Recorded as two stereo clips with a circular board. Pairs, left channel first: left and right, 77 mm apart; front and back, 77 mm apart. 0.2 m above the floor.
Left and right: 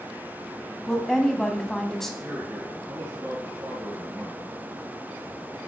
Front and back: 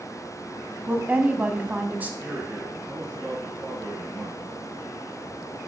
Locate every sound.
0.9 s a woman speaking: 165° left, 1.0 m
2.2 s a man speaking: 120° right, 2.5 m